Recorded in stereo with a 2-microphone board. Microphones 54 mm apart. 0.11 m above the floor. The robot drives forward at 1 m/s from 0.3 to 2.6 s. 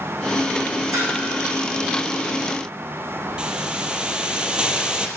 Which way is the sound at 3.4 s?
15° right (ahead or behind).